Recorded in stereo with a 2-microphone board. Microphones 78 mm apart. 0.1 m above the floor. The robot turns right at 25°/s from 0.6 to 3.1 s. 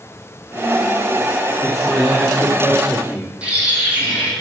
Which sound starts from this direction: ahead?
A man speaking, at 1.6 s.